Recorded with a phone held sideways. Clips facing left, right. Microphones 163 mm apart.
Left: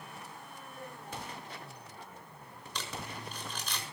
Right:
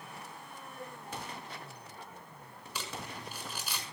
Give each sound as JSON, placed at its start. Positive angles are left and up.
{"t": 0.8, "sound": "a cowbell", "side_deg": 15, "distance_m": 10.0}
{"t": 2.8, "sound": "crumpling", "side_deg": -5, "distance_m": 6.0}